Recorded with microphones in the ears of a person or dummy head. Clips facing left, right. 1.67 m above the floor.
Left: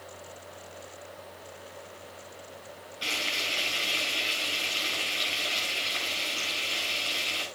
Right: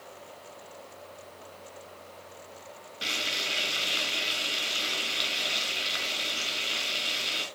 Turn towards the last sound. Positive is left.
turn(degrees=-30)  # may be behind; listen again after turning